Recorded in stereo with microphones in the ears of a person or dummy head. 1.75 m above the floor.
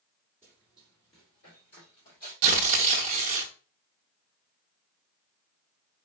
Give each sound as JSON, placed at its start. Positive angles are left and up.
{"t": 0.4, "sound": "running footsteps", "side_deg": 10, "distance_m": 1.9}
{"t": 2.4, "sound": "tearing paper", "side_deg": -40, "distance_m": 0.5}